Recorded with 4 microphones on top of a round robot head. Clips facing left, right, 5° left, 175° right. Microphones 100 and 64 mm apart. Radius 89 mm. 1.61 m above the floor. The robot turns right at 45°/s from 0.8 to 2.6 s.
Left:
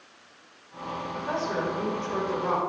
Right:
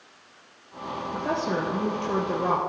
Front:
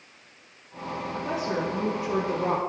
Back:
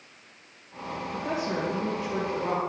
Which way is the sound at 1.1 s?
100° right.